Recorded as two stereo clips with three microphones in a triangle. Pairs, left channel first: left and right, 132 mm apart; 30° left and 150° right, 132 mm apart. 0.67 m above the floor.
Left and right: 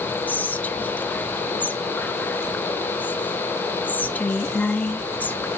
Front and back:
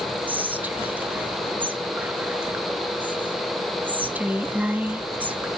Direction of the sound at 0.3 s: 150° left.